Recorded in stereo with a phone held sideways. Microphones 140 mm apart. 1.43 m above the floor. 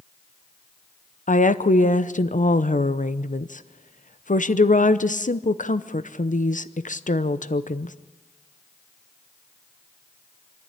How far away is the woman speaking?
About 0.7 m.